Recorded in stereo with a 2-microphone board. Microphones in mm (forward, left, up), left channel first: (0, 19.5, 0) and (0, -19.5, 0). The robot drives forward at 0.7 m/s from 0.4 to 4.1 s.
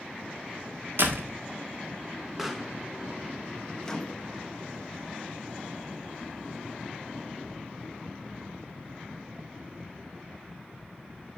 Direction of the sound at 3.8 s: 15° left (ahead or behind).